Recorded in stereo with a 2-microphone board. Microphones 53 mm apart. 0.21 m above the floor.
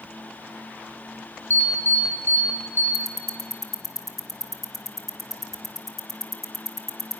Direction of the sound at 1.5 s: 50° left (ahead or behind).